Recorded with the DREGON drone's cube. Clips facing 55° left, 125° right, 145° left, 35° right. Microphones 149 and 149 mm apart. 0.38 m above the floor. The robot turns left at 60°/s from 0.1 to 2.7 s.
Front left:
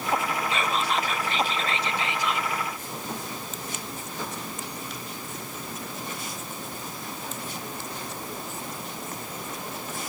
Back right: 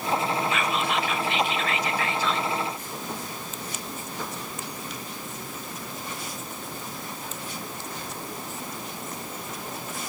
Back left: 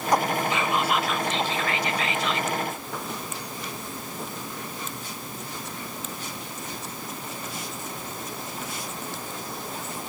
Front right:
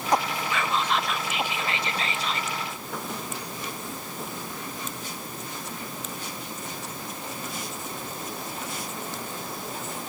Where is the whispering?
90° left, 1.0 m; by 2.5 s 25° right, 1.0 m.